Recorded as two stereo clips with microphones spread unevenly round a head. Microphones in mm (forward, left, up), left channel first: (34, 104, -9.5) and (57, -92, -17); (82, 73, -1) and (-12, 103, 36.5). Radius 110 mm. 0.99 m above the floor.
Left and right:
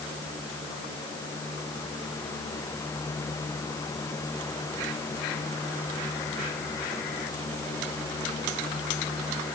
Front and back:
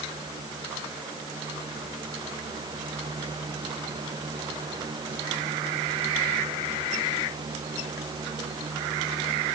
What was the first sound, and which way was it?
Only background noise.